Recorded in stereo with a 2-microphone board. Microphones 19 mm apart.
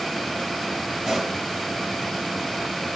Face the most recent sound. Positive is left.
turn(degrees=-60)  # may be behind; listen again after turning